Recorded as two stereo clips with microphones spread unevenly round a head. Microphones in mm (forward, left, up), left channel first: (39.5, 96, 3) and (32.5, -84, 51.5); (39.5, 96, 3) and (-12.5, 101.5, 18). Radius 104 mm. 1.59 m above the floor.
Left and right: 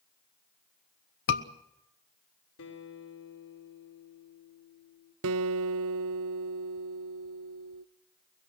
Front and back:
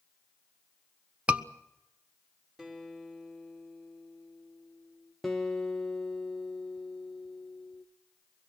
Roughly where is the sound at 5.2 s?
Right.